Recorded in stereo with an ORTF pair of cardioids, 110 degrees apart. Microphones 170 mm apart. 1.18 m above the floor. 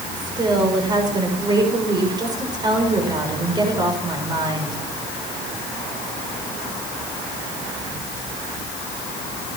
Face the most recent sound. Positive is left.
turn(degrees=-25)